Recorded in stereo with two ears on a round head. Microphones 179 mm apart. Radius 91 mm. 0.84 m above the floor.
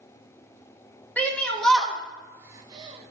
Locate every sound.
1.2 s a shout: 10° left (ahead or behind), 1.8 m; by 3.1 s 30° right (ahead or behind), 1.0 m